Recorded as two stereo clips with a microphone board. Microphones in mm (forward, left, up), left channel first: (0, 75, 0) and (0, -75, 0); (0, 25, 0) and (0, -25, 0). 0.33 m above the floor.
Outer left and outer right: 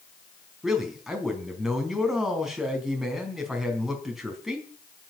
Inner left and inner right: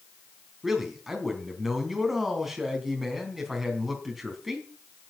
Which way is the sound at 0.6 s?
Centre (ahead or behind).